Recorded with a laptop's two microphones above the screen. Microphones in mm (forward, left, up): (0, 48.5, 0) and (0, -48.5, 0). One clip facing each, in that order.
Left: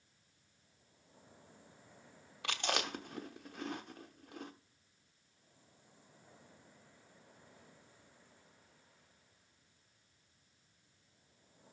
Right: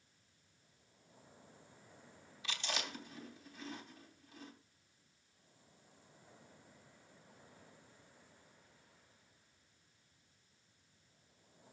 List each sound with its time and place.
2.4 s chewing: 60° left (ahead or behind), 1.0 m